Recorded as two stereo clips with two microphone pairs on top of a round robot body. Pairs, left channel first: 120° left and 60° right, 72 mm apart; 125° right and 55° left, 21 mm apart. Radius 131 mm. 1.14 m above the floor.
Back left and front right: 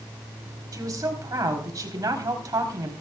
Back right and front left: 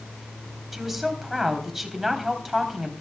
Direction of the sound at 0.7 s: 25° right.